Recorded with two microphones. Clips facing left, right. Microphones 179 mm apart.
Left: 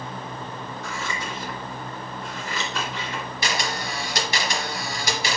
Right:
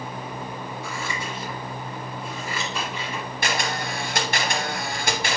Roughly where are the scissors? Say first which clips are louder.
Left 1 dB; centre.